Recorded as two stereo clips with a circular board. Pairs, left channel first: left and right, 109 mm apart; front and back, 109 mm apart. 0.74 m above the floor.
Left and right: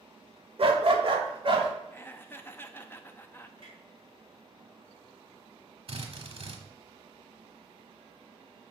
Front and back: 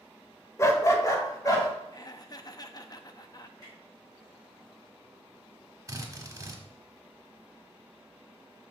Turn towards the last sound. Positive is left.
turn(degrees=-120)